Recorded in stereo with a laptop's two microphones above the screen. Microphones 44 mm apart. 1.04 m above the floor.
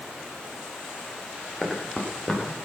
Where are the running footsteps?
5° left (ahead or behind), 10 m.